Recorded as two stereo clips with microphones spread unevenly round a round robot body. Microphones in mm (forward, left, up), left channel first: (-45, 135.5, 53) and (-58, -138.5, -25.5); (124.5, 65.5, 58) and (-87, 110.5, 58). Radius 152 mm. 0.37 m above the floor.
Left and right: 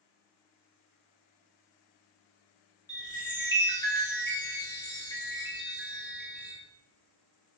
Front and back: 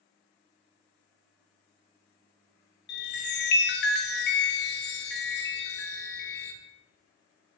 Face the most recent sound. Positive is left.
turn(degrees=0)